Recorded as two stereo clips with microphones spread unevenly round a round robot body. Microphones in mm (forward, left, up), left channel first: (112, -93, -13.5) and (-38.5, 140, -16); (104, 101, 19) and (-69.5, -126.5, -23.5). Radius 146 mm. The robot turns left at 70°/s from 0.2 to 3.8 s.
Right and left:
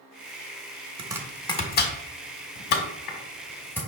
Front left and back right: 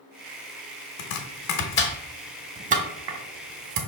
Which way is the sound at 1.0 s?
55° left.